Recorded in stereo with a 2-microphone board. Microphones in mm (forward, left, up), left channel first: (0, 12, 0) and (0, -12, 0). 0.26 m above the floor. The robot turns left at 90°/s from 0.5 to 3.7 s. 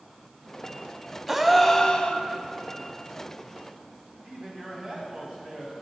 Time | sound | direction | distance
1.3 | a gasp | 165° right | 0.6 m
4.2 | a man speaking | 45° right (ahead or behind) | 1.9 m